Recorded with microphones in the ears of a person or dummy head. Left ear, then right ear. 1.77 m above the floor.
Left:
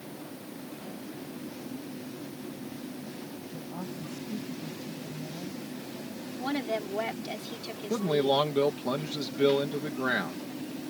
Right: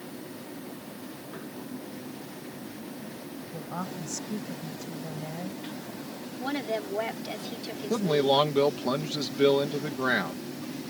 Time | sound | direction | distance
3.5 | a woman speaking | 55° right (ahead or behind) | ?
6.4 | a woman speaking | 5° left (ahead or behind) | ?
7.9 | a man speaking | 5° right (ahead or behind) | ?